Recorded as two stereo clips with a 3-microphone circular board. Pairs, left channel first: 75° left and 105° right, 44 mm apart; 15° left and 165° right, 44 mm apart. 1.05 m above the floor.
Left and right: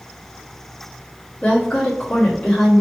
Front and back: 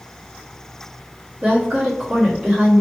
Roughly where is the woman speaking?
Behind left.